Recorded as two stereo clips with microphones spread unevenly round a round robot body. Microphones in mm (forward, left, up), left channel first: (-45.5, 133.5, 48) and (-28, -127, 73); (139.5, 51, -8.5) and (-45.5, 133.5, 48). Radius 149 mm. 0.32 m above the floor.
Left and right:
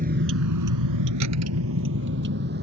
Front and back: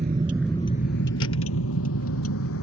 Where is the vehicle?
145° right; by 2.6 s 30° right.